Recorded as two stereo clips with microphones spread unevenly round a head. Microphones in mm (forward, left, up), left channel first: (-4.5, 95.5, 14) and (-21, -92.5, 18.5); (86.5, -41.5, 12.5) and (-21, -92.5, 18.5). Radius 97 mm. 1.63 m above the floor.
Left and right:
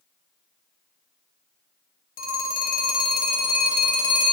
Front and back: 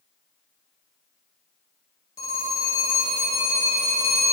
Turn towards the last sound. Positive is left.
turn(degrees=90)